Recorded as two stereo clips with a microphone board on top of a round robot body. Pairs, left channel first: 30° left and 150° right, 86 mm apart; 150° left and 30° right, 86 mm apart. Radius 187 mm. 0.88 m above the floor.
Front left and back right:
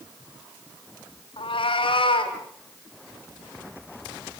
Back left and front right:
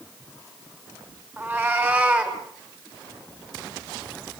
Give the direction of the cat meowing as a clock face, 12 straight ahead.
11 o'clock.